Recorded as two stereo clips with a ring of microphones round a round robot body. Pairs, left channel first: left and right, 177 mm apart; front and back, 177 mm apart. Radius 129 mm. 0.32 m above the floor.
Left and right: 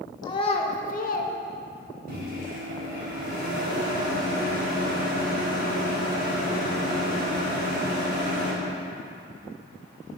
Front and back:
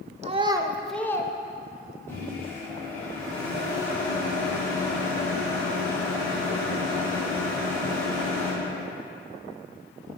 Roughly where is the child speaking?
Behind left.